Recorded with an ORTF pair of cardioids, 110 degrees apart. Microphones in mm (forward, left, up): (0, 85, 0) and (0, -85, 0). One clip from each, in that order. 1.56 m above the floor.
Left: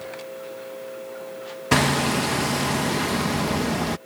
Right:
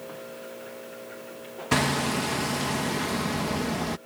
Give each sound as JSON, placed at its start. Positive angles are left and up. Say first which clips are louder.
{"t": 1.7, "sound": "hammering", "louder": "left 4 dB", "azimuth_deg": 20}